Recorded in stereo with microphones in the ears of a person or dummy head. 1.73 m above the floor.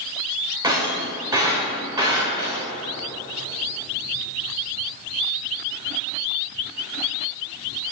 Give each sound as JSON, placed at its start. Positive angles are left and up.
{"t": 0.6, "sound": "breaking glass", "side_deg": -15, "distance_m": 2.5}